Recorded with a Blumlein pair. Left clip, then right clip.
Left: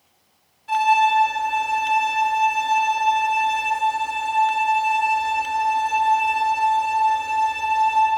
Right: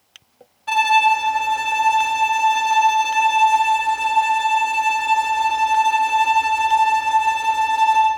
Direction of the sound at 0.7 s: 45° right.